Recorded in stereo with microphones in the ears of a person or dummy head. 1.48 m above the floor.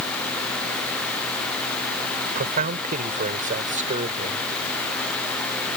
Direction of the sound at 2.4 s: 45° right (ahead or behind).